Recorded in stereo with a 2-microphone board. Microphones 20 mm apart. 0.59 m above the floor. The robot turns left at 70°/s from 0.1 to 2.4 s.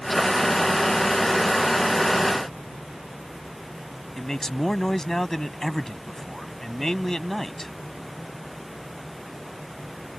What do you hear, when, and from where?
4.2 s a man speaking: 25° left (ahead or behind)